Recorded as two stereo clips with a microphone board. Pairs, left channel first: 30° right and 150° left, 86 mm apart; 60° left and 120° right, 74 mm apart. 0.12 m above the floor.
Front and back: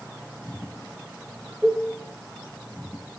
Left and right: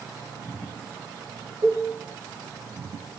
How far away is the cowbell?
About 9.5 m.